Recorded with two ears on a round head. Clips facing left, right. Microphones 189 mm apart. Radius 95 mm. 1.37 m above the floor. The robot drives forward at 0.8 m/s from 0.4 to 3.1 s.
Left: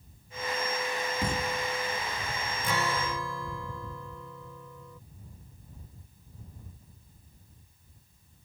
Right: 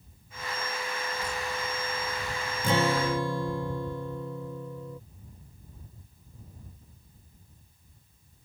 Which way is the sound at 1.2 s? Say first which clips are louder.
Left 3 dB; 45° left (ahead or behind).